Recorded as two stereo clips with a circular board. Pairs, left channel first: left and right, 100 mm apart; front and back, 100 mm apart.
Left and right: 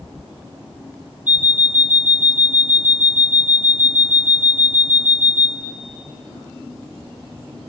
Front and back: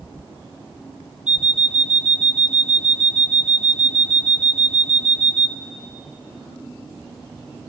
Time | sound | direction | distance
1.3 | an alarm clock | 125° right | 0.7 m